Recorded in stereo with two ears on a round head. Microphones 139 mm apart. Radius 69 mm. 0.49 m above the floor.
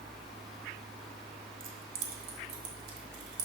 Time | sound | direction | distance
1.6 | keys jangling | 60° right (ahead or behind) | 1.3 m